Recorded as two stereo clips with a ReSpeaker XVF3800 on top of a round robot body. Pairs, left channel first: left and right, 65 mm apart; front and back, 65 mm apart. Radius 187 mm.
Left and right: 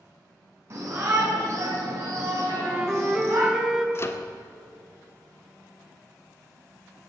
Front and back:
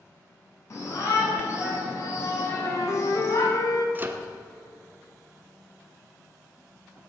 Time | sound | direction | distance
0.7 | a shout | 45° right | 6.5 m
2.5 | a flute | 10° right | 2 m
4.0 | a microwave | 130° left | 1.5 m